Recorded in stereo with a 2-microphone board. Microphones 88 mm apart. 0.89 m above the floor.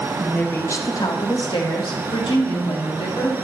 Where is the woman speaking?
10° left (ahead or behind), 0.6 m; by 3.3 s 75° left (ahead or behind), 2 m.